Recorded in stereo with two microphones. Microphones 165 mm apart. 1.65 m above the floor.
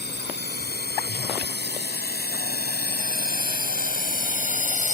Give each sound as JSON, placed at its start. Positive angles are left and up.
{"t": 0.0, "sound": "a drone", "side_deg": 85}